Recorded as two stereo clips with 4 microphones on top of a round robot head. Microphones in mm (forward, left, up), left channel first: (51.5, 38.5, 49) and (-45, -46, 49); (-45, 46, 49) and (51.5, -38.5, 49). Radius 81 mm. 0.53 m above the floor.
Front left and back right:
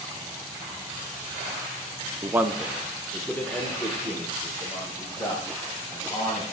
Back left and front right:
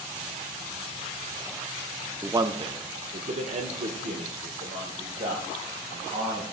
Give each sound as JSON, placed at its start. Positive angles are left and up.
{"t": 2.2, "sound": "a man speaking", "azimuth_deg": -90, "distance_m": 0.7}